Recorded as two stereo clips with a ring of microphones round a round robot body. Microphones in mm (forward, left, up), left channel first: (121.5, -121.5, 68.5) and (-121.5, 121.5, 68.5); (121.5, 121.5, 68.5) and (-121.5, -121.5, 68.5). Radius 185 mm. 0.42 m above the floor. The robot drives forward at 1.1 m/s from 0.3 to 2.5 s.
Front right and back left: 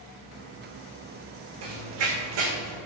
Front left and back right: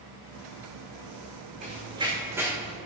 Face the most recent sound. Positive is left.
turn(degrees=130)